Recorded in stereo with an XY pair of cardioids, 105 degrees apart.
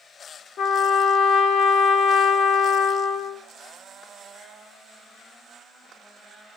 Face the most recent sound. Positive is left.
turn(degrees=65)